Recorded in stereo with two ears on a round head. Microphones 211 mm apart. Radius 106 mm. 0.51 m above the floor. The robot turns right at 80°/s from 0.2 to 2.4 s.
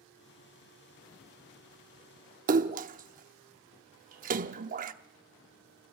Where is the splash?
35° right (ahead or behind), 0.7 m.